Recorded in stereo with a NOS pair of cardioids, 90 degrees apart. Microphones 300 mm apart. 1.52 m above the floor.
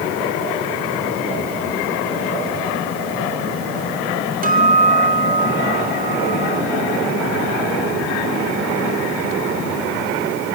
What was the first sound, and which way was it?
A guitar, 30° right.